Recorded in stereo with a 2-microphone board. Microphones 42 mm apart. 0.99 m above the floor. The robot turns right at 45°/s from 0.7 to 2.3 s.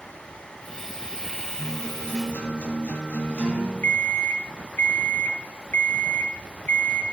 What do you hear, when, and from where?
1.6 s a guitar: 5° left, 6 m; by 3.7 s 35° left, 6 m
3.8 s an alarm clock: 50° left (ahead or behind), 1.3 m